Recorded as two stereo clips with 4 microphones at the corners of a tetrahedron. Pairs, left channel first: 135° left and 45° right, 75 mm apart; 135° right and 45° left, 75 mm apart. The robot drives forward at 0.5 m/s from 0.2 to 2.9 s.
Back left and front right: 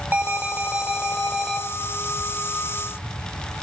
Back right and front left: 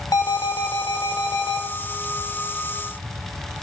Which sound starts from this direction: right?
An alarm, at 0.1 s.